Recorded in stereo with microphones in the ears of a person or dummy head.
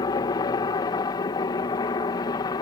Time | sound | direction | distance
0.0 | a helicopter | 20° left (ahead or behind) | ?